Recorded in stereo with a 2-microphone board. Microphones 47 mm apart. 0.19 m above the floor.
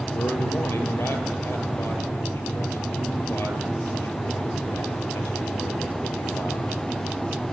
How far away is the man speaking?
About 3.5 m.